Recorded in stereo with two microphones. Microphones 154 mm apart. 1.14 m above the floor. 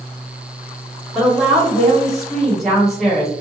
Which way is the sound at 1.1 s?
Centre (ahead or behind).